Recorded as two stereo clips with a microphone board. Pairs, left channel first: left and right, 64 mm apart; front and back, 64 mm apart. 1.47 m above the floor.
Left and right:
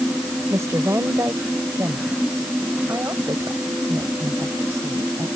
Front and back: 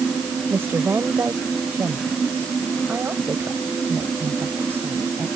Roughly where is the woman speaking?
Behind right.